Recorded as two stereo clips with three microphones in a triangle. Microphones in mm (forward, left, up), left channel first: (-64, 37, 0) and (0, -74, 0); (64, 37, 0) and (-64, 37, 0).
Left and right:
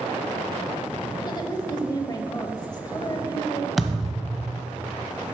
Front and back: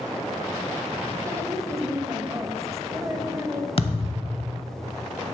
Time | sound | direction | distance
1.3 | a woman speaking | 135° left | 1.0 m
3.8 | a thud | 30° left | 0.9 m